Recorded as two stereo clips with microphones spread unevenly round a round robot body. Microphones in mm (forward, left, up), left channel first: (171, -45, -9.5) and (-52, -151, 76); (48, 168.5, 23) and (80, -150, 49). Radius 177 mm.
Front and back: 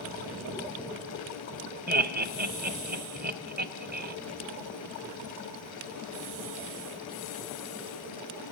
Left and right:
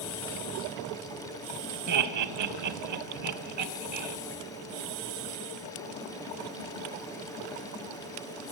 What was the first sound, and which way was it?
Laughter, 95° right.